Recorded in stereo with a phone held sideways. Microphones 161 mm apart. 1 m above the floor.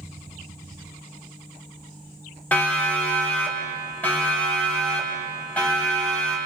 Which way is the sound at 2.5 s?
10° left (ahead or behind).